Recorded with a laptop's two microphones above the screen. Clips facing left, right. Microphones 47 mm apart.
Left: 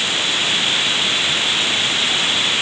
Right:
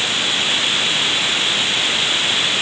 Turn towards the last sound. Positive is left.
No sound to turn to.